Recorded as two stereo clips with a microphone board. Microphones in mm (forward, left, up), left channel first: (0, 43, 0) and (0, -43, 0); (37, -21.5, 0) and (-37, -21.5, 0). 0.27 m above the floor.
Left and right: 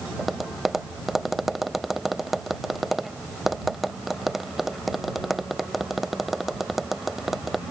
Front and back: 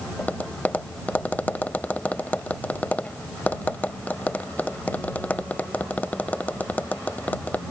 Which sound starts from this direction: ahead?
Tapping, at 0.2 s.